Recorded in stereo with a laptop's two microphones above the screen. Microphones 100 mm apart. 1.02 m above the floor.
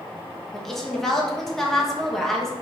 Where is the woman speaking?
5° left (ahead or behind), 1.2 m.